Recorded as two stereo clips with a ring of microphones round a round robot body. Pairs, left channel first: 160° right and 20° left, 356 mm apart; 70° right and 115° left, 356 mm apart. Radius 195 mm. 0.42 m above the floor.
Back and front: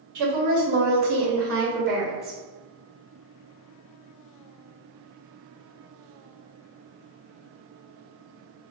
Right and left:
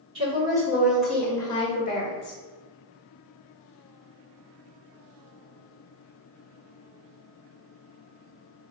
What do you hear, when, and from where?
0.1 s a woman speaking: 40° left, 1.6 m; by 2.4 s 35° right, 1.3 m